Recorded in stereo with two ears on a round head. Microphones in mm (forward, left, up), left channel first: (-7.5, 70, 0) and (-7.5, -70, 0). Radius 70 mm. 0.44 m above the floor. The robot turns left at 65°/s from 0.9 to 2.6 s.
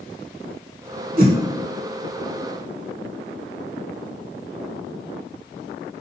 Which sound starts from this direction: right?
A whoosh, at 1.2 s.